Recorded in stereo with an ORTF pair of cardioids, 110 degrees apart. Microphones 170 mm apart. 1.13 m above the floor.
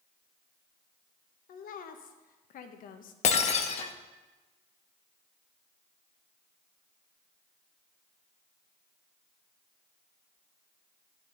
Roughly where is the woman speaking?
Ahead left.